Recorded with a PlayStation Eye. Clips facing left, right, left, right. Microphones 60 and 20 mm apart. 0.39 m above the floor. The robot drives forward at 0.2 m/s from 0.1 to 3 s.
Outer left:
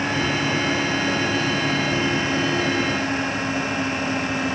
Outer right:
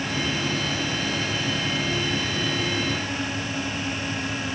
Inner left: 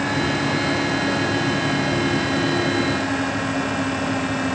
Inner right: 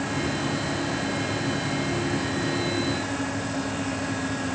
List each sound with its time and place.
Only background noise.